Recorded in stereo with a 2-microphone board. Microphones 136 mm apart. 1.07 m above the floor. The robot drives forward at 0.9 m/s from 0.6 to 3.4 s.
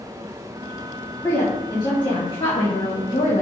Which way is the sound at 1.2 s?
25° left (ahead or behind).